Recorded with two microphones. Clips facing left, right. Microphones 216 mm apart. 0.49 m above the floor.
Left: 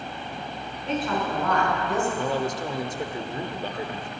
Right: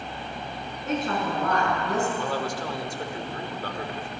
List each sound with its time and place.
0.8 s a woman speaking: 45° right (ahead or behind), 5 m; by 2.1 s 40° right (ahead or behind), 4 m
2.2 s a man speaking: 20° left (ahead or behind), 1.0 m